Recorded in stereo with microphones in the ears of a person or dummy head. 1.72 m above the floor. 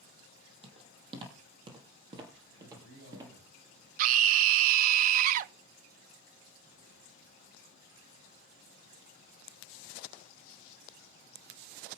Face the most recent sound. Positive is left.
turn(degrees=-55)  # may be behind; listen again after turning